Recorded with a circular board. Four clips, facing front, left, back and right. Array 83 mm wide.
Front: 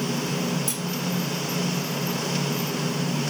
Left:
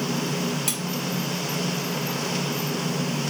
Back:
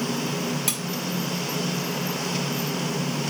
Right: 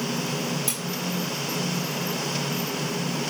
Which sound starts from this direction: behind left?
Cutlery clinking, at 0.7 s.